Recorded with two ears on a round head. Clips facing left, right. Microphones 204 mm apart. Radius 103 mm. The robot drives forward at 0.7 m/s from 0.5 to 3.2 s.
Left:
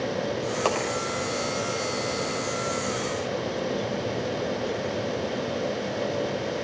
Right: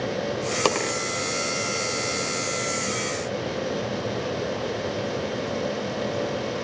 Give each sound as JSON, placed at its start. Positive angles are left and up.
{"t": 0.7, "sound": "a dropped coin", "side_deg": -50, "distance_m": 1.7}